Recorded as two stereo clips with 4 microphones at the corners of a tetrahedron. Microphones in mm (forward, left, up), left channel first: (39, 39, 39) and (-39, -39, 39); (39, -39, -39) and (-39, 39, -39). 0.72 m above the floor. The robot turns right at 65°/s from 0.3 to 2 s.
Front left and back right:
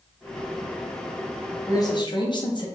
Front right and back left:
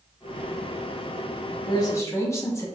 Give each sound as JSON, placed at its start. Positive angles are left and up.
{"t": 1.7, "sound": "a man speaking", "azimuth_deg": -10, "distance_m": 0.7}